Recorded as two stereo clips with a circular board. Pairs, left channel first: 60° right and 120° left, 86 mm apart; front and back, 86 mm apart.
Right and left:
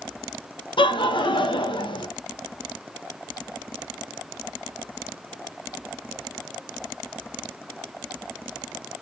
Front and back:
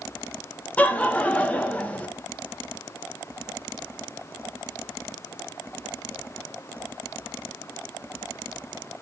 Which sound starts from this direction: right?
Laughter, at 0.8 s.